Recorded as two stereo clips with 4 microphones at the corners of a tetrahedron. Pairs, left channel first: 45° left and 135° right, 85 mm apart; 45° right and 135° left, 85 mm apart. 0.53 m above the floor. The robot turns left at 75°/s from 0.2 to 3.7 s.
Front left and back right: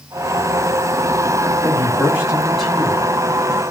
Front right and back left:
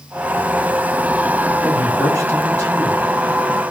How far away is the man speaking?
About 1.3 m.